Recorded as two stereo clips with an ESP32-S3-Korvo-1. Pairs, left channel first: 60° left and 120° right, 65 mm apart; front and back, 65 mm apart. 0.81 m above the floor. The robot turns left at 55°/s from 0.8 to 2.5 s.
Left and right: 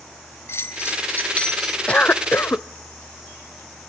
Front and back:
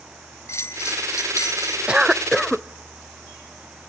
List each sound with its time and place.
0.5 s a bell: 25° left, 1.3 m; by 1.8 s 25° right, 1.3 m
1.9 s a cough: 120° left, 0.6 m; by 2.7 s 85° left, 0.6 m